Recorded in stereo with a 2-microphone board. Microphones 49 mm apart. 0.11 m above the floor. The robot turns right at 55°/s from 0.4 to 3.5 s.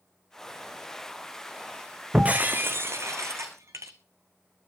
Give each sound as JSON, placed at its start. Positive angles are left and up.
{"t": 2.1, "sound": "breaking glass", "azimuth_deg": -160, "distance_m": 1.8}